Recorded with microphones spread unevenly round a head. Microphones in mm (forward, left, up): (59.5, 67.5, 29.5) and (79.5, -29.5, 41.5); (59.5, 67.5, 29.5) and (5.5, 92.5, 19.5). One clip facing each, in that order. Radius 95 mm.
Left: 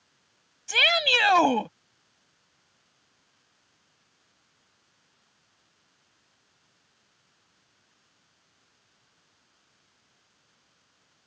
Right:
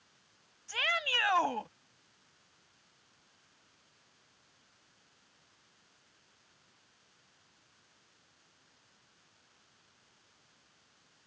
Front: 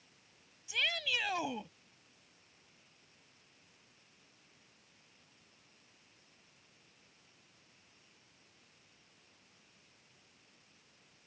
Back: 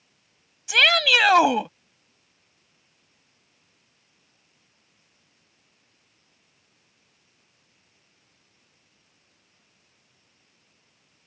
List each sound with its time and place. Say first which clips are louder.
0.7 s a shout: left 10 dB, back 17 dB; 140° left